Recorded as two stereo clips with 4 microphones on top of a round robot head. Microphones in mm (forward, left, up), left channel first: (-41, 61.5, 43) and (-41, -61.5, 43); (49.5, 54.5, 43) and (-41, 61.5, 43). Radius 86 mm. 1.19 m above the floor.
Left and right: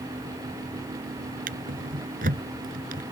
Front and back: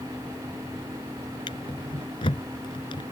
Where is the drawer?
60° right.